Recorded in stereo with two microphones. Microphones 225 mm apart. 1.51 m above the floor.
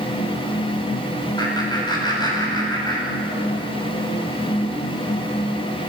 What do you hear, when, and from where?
1.4 s laughter: 20° left (ahead or behind), 9 m